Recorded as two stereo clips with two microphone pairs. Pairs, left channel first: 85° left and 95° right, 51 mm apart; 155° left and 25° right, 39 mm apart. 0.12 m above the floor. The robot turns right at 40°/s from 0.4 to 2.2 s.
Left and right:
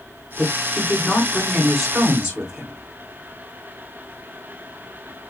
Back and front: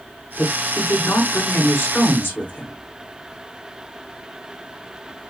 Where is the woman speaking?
125° left, 6.5 m; by 2.8 s 165° right, 6.5 m.